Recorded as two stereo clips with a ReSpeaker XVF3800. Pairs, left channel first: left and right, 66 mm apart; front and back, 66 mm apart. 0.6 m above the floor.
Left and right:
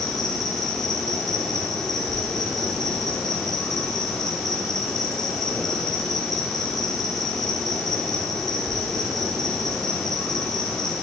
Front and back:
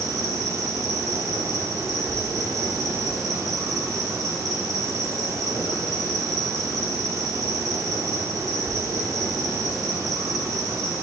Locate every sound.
0.0 s an insect: 175° left, 1.0 m